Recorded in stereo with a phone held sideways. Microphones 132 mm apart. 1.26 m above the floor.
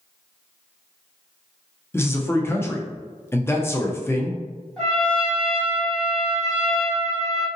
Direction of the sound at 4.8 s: 5° left (ahead or behind).